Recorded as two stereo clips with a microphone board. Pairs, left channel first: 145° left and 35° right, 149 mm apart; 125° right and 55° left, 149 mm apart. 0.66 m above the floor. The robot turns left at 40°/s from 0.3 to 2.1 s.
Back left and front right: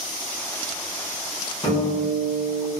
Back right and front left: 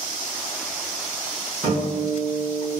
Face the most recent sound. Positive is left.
turn(degrees=70)